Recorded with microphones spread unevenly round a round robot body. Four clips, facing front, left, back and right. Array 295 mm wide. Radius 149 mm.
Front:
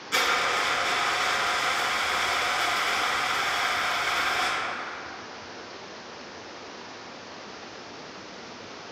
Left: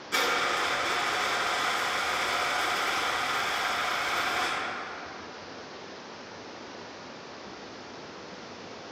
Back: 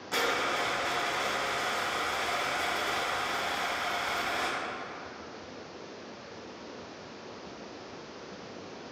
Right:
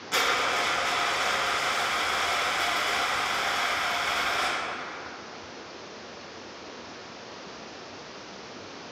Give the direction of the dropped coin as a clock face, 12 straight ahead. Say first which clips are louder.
Right 1 dB, front 4 dB; 5 o'clock.